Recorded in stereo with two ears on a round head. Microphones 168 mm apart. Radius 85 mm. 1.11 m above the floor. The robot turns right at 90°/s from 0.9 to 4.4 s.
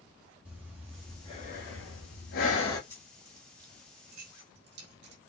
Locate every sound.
0.5 s breathing: 10° right, 2.5 m; by 2.8 s 165° left, 2.5 m
2.9 s keys jangling: 15° left (ahead or behind), 2.5 m; by 5.2 s 60° right (ahead or behind), 2.5 m